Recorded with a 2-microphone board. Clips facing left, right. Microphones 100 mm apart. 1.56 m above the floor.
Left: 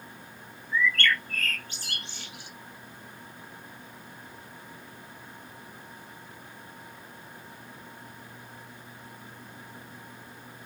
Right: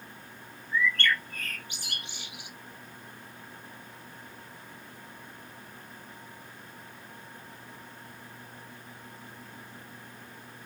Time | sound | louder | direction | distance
0.7 | a bird | left 1 dB | 15° right (ahead or behind) | 0.7 m